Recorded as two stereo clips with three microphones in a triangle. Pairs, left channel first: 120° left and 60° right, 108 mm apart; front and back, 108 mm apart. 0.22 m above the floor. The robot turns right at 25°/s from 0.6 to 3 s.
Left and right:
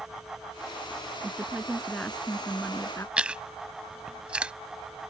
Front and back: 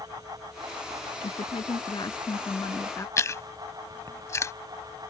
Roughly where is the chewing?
Ahead.